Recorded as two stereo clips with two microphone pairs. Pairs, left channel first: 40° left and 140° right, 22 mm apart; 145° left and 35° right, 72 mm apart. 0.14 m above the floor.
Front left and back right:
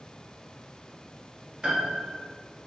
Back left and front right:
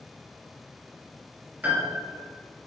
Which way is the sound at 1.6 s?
100° right.